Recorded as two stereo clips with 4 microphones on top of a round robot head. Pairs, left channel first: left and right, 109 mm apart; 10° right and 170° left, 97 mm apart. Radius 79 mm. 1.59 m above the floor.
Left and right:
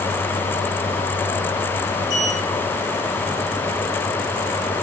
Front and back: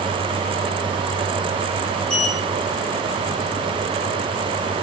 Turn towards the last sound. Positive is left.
turn(degrees=70)